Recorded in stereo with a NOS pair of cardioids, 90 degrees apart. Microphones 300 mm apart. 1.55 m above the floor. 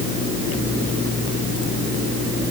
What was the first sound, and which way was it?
Only background noise.